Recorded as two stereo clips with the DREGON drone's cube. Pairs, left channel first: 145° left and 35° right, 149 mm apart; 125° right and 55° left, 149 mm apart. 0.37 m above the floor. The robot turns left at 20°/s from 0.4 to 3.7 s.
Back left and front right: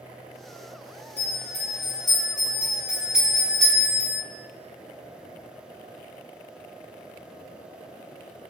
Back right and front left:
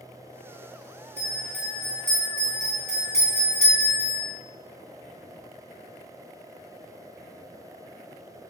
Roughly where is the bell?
Right.